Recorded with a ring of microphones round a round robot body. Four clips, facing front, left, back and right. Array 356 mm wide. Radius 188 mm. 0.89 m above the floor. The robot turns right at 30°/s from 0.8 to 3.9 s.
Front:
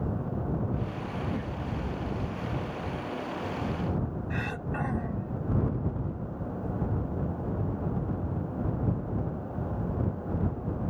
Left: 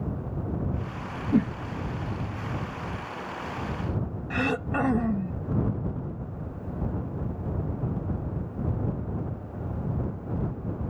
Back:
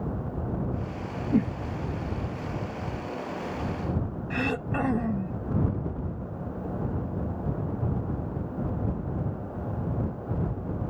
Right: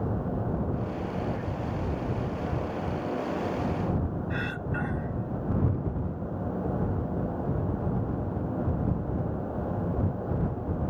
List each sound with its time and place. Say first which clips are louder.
1.3 s a whoosh: left 9 dB, back 9 dB; 130° left; by 1.6 s 135° left
4.3 s throat clearing: left 5 dB, back 5 dB; 125° left